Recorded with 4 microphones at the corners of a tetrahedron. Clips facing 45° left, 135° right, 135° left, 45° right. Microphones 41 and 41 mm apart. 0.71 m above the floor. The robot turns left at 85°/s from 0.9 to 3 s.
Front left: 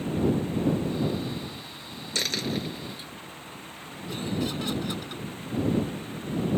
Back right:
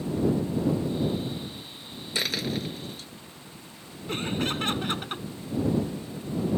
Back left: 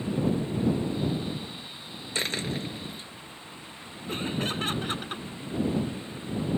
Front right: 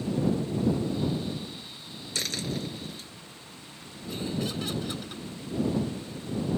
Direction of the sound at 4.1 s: 175° right.